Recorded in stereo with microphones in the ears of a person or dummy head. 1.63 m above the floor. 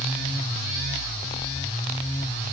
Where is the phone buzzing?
No phone buzzing in this recording.